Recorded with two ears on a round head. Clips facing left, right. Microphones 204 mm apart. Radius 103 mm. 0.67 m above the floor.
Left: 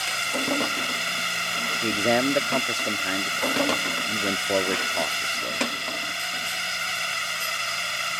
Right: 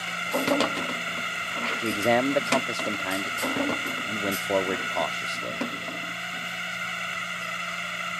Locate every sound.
0.0 s a drone: 60° left (ahead or behind)
1.8 s a man speaking: 10° left (ahead or behind)